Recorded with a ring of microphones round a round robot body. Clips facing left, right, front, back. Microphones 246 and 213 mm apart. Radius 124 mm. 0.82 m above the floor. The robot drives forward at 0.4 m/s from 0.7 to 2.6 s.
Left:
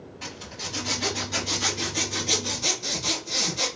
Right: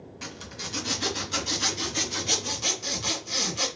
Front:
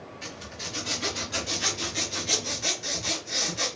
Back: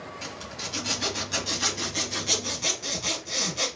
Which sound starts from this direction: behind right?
A zipper, at 0.2 s.